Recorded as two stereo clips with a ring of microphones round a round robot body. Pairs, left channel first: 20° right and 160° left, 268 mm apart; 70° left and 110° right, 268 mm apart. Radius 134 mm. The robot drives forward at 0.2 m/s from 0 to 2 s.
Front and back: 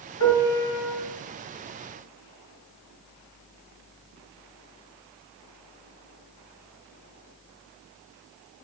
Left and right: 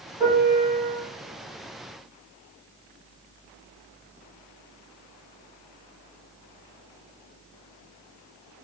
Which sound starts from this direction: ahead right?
A piano, at 0.2 s.